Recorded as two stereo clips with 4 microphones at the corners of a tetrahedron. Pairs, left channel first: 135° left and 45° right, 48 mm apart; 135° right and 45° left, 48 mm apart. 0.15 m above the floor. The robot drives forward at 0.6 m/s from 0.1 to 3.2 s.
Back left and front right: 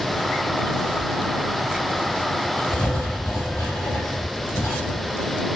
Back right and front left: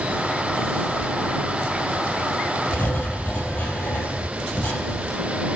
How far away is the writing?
About 2.5 m.